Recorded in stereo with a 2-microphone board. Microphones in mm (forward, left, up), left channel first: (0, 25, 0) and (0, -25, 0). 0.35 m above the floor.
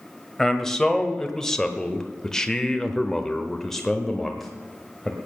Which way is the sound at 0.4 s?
10° left (ahead or behind).